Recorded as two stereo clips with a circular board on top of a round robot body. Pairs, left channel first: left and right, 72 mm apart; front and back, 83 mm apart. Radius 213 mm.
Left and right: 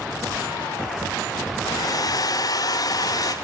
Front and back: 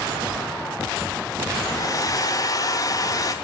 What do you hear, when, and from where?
1.7 s a hair dryer: 50° left, 1.3 m